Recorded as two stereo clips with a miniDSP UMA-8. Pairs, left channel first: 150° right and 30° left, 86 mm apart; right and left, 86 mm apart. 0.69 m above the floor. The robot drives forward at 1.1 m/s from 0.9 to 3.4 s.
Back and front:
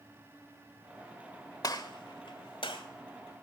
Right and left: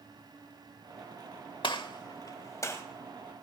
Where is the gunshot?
105° right, 1.1 m; by 2.8 s 145° right, 1.9 m.